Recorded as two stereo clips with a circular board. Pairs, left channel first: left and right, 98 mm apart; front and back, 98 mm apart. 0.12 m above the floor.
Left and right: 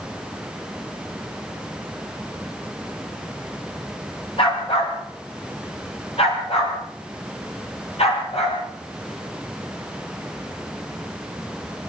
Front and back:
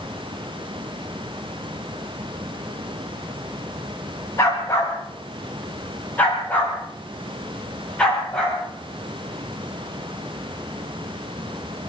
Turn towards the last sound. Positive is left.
turn(degrees=80)